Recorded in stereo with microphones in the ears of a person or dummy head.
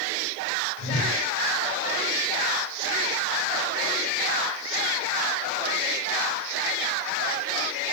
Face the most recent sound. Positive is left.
turn(degrees=10)  # may be behind; listen again after turning